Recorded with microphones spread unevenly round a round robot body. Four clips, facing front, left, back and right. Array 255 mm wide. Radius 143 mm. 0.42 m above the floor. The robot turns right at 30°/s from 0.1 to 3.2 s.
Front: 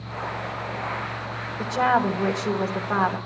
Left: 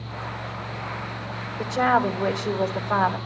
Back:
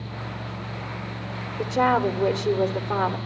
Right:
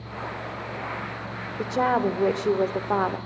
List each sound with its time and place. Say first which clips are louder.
1.6 s a woman speaking: left 2 dB, even; 140° right, 1.1 m; by 3.2 s 95° right, 1.1 m